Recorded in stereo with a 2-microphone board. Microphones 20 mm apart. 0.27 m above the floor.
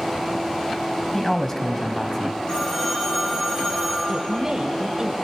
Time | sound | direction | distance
1.1 | a man speaking | 15° left (ahead or behind) | 1.6 m
2.5 | a phone ringing | 35° left (ahead or behind) | 8 m
4.1 | a woman speaking | 30° right (ahead or behind) | 1.2 m